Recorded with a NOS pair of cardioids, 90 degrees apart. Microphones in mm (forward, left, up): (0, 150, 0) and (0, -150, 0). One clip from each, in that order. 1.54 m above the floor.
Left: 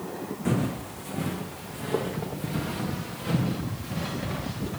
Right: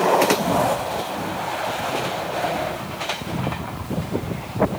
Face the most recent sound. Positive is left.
turn(degrees=45)